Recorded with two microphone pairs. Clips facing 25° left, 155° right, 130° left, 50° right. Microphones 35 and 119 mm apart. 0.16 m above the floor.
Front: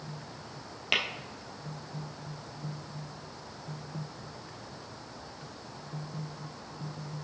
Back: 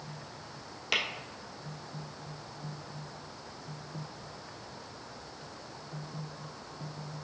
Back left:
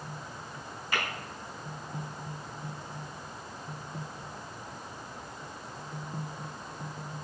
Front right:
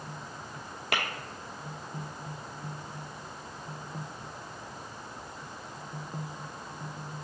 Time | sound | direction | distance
0.9 | tapping | 45° right | 0.9 m